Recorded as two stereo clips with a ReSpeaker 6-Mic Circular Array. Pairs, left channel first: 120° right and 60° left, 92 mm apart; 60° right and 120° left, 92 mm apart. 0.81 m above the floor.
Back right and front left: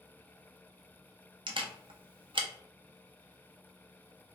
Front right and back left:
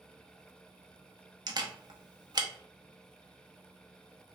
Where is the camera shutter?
80° left, 0.5 m.